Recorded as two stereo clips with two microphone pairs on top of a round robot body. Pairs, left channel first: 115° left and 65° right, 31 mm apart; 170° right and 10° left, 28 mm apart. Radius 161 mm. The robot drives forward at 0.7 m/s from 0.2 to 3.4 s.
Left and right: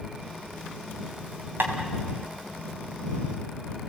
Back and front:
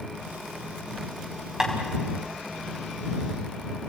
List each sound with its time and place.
1.6 s tapping: 70° right, 2 m; by 1.7 s 75° right, 2 m